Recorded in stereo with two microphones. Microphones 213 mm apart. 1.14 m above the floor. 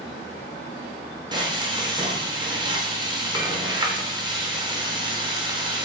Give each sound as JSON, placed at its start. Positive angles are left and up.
{"t": 1.3, "sound": "frying", "side_deg": -20, "distance_m": 0.6}